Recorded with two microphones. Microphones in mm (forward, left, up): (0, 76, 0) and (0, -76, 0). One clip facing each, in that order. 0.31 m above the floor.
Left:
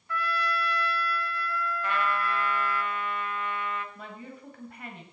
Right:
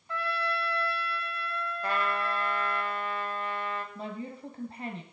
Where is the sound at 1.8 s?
35° right (ahead or behind), 1.4 m.